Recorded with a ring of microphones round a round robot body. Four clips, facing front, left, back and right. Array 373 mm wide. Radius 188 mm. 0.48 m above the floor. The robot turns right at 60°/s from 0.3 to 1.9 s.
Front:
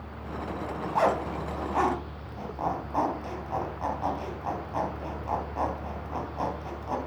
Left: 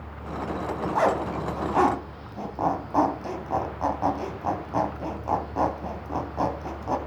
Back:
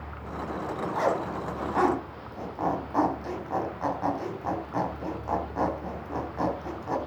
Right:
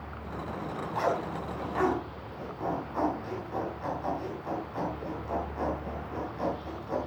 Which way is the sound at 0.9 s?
45° left.